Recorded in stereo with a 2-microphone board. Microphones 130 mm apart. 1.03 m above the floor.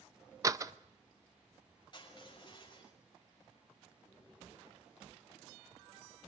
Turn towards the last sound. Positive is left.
turn(degrees=35)  # may be behind; listen again after turning